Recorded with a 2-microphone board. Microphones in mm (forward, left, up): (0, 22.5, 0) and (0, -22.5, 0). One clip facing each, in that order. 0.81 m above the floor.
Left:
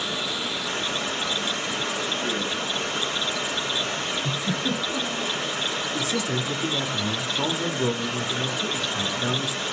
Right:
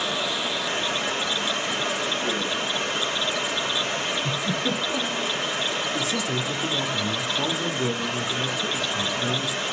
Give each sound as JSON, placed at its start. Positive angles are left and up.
{"t": 0.0, "sound": "running water", "side_deg": -55, "distance_m": 3.5}
{"t": 4.2, "sound": "a giggle", "side_deg": -65, "distance_m": 5.5}
{"t": 5.9, "sound": "a man speaking", "side_deg": 35, "distance_m": 1.2}